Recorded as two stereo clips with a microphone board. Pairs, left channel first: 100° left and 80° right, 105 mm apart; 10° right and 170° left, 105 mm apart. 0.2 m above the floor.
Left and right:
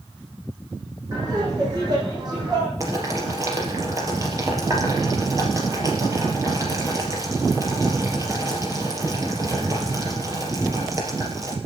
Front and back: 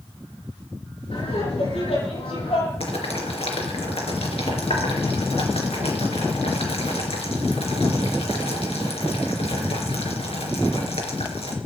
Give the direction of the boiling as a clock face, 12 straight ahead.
1 o'clock.